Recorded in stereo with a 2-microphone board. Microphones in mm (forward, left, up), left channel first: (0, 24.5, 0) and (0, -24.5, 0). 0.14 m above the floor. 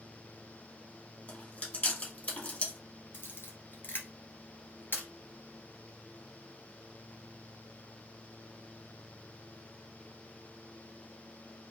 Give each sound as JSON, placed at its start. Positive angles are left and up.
{"t": 1.3, "sound": "chewing", "side_deg": 30, "distance_m": 2.5}
{"t": 3.1, "sound": "a camera shutter", "side_deg": 50, "distance_m": 1.4}